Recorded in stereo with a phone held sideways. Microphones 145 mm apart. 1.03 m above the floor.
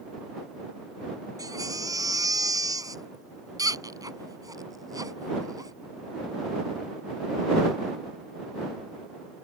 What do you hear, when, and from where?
1.4 s a baby crying: 25° right (ahead or behind)